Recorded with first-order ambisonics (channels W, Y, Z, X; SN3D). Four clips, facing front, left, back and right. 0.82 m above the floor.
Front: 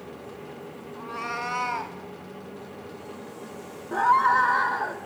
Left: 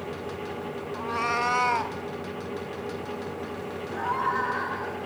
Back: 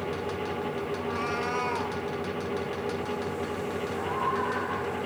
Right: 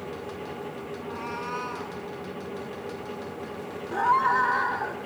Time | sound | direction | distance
0.9 | a cat meowing | 90° left | 1.4 m
3.9 | a scream | 20° right | 1.8 m